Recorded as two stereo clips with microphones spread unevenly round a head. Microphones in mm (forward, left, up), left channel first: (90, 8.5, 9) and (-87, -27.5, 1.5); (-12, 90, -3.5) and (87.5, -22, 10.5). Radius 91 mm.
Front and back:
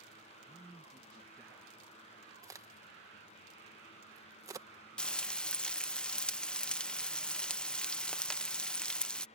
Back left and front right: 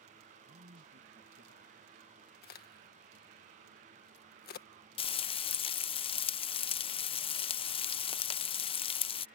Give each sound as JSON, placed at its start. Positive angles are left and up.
{"t": 0.4, "sound": "a man speaking", "azimuth_deg": -75}
{"t": 2.4, "sound": "a crack", "azimuth_deg": 120}
{"t": 5.0, "sound": "frying", "azimuth_deg": 90}